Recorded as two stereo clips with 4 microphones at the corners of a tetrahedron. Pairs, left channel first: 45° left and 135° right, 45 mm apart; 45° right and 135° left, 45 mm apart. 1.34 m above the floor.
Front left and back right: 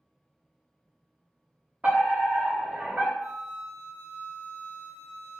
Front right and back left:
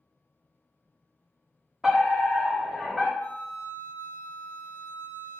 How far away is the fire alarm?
About 1.0 m.